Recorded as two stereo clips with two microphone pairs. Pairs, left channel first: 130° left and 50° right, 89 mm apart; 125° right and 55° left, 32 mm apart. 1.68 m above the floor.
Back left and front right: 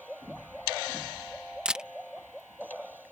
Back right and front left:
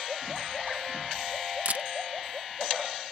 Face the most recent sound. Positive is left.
turn(degrees=30)